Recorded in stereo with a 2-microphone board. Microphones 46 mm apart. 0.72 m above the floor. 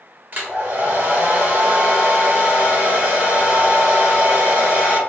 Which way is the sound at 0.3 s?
45° right (ahead or behind).